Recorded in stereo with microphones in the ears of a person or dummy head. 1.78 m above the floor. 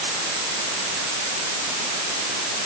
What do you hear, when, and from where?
Only background noise.